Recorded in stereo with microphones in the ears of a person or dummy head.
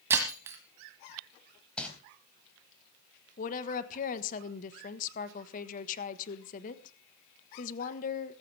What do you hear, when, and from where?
0.1 s breaking glass: 20° right (ahead or behind), 1.7 m
1.8 s crumpling: centre (ahead or behind), 3.5 m
3.4 s a woman speaking: 40° left (ahead or behind), 1.4 m